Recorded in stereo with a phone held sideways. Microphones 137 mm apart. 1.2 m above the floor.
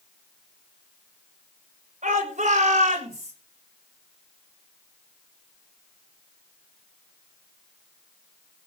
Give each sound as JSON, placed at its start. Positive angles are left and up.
{"t": 2.0, "sound": "a shout", "side_deg": -60, "distance_m": 7.0}